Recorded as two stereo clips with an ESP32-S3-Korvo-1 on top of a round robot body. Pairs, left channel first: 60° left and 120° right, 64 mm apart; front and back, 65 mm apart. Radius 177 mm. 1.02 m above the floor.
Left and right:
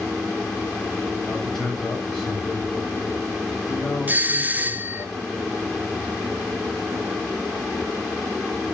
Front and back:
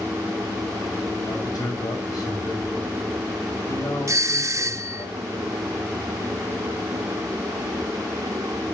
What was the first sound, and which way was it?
A man speaking, 25° right.